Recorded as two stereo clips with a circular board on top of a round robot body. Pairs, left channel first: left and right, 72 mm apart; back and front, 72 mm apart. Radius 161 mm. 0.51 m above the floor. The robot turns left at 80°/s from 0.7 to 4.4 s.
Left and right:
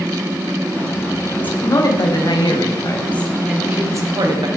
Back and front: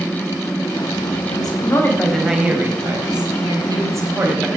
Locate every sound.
1.3 s a woman speaking: 170° left, 4.5 m; by 4.5 s 80° right, 4.5 m